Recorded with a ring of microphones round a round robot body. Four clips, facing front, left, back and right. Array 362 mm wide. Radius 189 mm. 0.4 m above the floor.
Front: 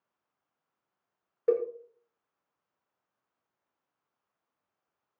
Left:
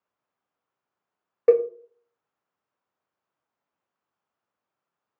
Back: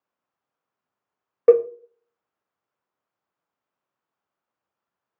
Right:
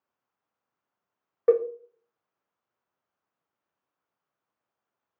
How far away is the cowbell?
About 0.7 m.